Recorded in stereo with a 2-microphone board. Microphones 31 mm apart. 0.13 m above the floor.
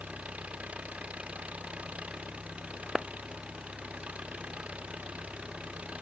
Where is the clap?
15° right (ahead or behind).